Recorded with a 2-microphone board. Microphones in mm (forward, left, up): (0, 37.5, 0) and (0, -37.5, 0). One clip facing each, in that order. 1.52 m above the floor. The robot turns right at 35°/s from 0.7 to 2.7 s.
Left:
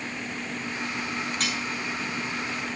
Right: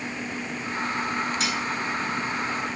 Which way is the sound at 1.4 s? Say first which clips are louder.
Right 2 dB; 50° left (ahead or behind).